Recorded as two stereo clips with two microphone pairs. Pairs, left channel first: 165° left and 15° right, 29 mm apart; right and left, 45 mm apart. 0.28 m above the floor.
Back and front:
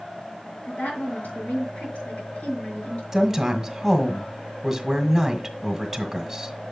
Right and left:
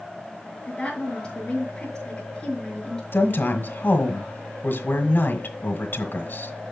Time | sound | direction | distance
0.7 | a woman speaking | 160° right | 5.5 m
3.1 | a woman speaking | 85° right | 1.6 m